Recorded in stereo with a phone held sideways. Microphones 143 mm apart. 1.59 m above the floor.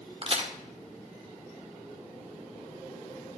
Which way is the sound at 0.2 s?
40° right (ahead or behind).